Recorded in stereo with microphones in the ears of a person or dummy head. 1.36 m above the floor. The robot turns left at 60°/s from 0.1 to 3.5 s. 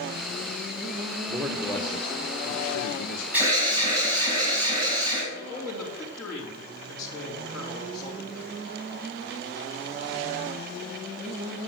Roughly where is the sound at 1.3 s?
Behind.